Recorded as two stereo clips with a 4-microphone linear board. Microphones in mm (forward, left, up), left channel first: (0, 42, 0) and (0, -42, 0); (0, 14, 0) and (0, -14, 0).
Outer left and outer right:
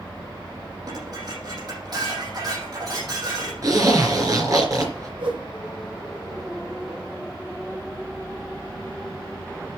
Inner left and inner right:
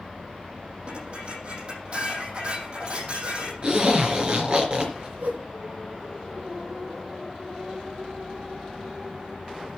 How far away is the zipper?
About 4 m.